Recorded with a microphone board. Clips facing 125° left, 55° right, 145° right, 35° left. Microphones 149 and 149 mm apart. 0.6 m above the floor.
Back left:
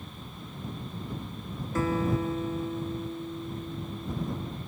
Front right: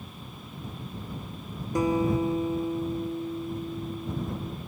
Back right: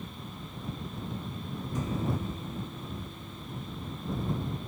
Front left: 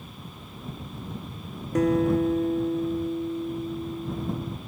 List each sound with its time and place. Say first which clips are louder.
1.8 s a guitar: front right 3 dB, front left 13 dB; 20° left